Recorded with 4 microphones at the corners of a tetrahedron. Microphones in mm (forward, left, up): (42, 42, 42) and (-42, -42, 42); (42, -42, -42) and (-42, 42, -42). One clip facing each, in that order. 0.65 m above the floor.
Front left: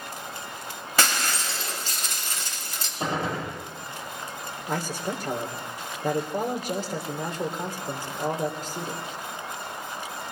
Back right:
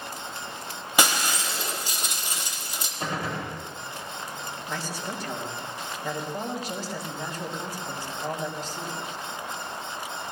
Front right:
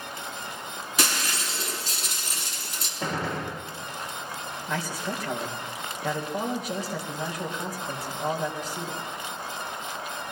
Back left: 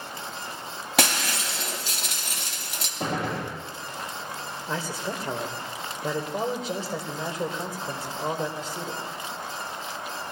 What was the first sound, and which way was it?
Breaking glass, 150° left.